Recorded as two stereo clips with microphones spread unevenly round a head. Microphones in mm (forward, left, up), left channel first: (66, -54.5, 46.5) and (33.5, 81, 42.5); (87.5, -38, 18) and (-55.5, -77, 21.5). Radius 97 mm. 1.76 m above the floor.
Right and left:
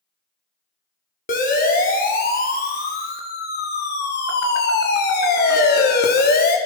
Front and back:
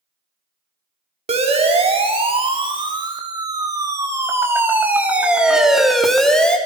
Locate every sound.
1.3 s a siren: 120° right, 4.5 m; by 6.6 s 70° right, 4 m